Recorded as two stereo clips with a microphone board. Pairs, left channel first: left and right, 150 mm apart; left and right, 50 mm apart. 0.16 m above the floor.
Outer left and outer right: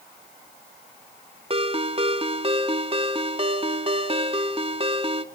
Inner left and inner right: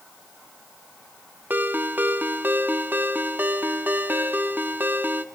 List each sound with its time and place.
1.5 s a ringtone: 40° right (ahead or behind), 0.9 m